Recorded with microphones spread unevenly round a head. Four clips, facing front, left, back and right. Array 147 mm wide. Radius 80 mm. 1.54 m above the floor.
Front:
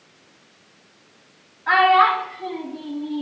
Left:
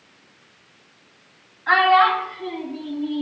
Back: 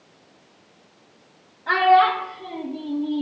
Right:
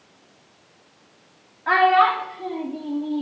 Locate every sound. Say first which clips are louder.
1.7 s a child speaking: left 1 dB, front 1 dB; 105° right, 3 m; by 3.2 s 125° right, 2 m